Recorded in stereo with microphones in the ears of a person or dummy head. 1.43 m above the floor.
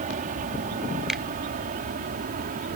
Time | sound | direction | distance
0.0 | an aircraft | 40° right (ahead or behind) | ?
1.1 | a finger snap | centre (ahead or behind) | ?